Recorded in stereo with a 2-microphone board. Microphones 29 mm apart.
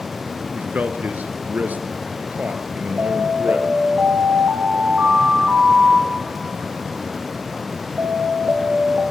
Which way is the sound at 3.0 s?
70° right (ahead or behind).